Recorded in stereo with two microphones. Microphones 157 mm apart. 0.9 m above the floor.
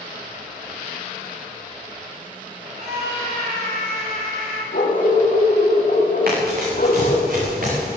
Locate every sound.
2.8 s a scream: 55° right (ahead or behind), 6 m; by 4.6 s 65° right (ahead or behind), 5.5 m
4.7 s a dog barking: 65° left (ahead or behind), 2.0 m
6.3 s running footsteps: 70° right (ahead or behind), 5.5 m; by 8.0 s 65° right (ahead or behind), 6.5 m